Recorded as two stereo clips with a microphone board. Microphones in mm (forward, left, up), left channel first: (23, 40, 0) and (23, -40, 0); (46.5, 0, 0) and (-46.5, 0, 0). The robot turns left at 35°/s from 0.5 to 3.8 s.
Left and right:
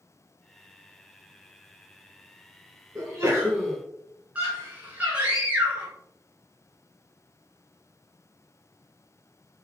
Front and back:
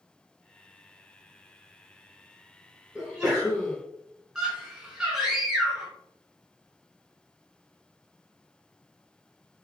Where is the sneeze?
95° right, 1.1 m; by 3.8 s 125° right, 1.1 m.